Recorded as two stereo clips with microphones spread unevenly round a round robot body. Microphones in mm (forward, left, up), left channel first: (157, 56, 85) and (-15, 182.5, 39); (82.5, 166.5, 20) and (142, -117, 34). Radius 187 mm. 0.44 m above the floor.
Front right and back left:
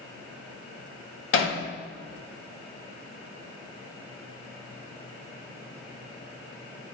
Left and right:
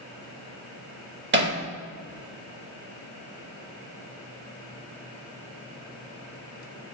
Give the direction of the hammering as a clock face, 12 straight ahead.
1 o'clock.